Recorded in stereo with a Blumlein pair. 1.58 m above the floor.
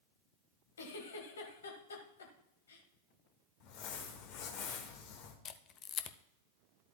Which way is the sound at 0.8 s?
65° left.